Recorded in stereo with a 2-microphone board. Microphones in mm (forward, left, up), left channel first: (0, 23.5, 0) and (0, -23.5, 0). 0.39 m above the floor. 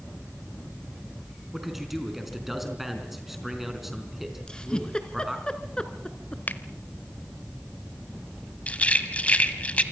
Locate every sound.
1.5 s a man speaking: 5° right (ahead or behind), 4.5 m
4.5 s a giggle: 15° left (ahead or behind), 1.8 m
6.5 s a finger snap: 45° left (ahead or behind), 0.9 m
8.7 s a rattle: 30° left (ahead or behind), 1.5 m